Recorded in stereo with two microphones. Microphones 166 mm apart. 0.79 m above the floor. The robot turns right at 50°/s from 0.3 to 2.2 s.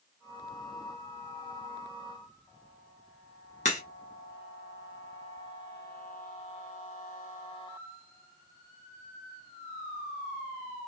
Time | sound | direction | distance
3.6 | a crack | 45° left (ahead or behind) | 1.2 m